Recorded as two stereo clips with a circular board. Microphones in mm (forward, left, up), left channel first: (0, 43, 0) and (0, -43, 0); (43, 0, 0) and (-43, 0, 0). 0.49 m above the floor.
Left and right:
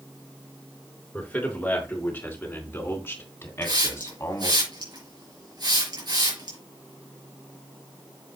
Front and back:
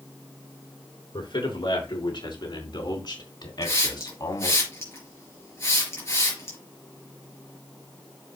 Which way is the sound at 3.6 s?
55° right.